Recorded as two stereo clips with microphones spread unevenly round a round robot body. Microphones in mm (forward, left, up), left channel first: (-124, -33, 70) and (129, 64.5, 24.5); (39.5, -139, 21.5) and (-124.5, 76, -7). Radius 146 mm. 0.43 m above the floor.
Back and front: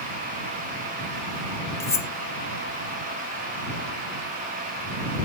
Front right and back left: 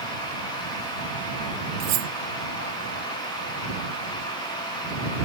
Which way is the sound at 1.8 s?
120° left.